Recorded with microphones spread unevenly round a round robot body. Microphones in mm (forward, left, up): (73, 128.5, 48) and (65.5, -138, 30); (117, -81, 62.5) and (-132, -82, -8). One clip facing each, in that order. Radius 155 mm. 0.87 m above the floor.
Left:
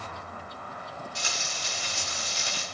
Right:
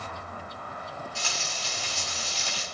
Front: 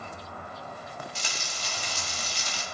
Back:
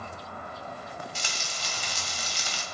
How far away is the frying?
About 2 m.